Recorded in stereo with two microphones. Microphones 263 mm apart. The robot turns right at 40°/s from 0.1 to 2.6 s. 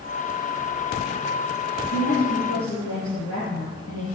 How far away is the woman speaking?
About 5.5 m.